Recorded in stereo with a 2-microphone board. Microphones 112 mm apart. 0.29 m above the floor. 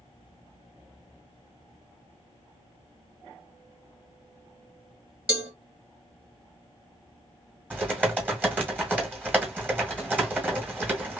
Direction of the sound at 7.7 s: 15° right (ahead or behind).